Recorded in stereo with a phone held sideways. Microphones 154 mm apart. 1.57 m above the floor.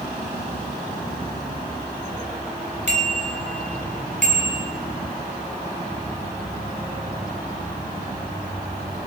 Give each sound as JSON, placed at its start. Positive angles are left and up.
{"t": 2.9, "sound": "a bicycle bell", "side_deg": -50, "distance_m": 5.0}